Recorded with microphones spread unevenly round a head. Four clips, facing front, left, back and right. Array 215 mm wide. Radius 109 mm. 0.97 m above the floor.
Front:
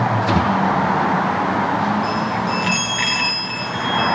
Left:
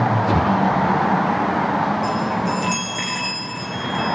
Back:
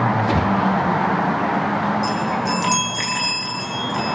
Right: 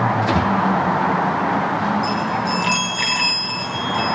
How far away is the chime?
About 8 m.